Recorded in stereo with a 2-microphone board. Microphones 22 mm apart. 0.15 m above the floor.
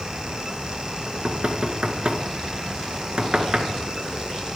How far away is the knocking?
About 1.9 m.